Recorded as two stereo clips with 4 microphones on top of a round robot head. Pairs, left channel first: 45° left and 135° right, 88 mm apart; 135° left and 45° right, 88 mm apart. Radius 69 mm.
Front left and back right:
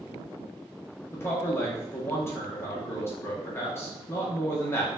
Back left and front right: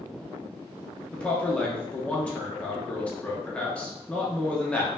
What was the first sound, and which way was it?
A man speaking, 70° left.